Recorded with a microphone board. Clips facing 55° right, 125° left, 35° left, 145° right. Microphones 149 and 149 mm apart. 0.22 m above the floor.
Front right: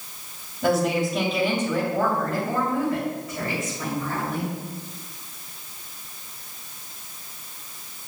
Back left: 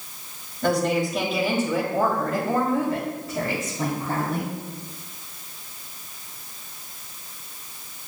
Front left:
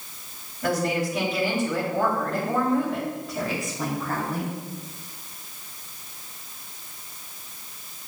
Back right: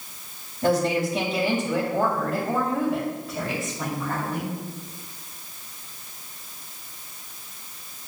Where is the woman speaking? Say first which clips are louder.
Even, back right 3 dB; 135° right, 1.8 m; by 4.5 s 110° left, 2 m.